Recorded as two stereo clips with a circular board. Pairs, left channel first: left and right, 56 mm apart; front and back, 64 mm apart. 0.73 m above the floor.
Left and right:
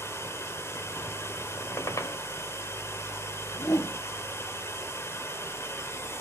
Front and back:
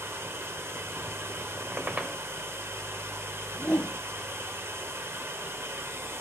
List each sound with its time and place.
0.0 s running water: 130° left, 1.8 m
1.6 s a squeak: 115° left, 1.9 m
3.5 s a whoosh: 75° left, 3 m